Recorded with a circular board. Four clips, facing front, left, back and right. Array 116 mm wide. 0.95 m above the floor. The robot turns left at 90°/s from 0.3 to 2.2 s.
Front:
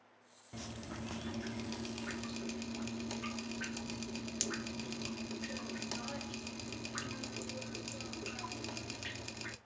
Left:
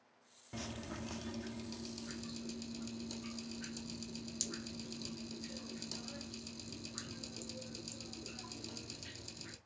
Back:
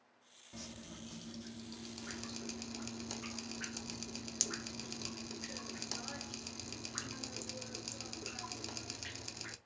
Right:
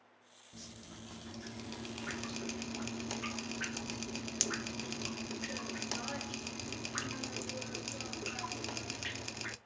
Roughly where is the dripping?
Left.